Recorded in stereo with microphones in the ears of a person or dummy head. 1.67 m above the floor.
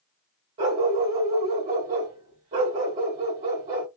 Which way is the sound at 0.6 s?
35° right (ahead or behind).